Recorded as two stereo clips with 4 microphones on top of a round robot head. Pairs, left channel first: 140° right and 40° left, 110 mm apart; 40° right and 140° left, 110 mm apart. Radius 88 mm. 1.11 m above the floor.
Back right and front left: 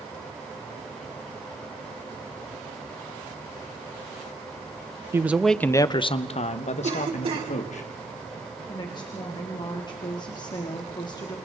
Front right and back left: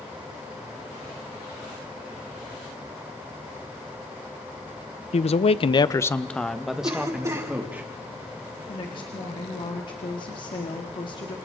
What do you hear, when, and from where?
5.1 s a man speaking: 30° right, 1.0 m; by 7.8 s 145° right, 2.5 m
6.8 s a cough: 75° left, 4.5 m
8.7 s a woman speaking: 90° right, 2.0 m